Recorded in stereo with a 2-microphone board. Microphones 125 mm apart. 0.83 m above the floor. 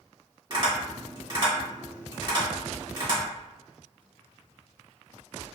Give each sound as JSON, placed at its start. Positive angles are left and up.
{"t": 0.5, "sound": "tapping", "side_deg": -35, "distance_m": 1.8}